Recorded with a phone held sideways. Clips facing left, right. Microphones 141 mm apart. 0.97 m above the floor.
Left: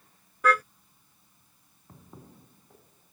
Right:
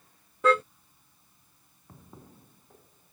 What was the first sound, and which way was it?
A car horn, 25° right (ahead or behind).